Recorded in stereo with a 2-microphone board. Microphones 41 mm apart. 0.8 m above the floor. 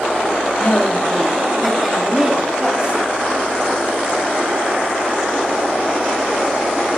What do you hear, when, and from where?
0.6 s a woman speaking: 40° left (ahead or behind), 1.8 m; by 3.0 s 35° right (ahead or behind), 3 m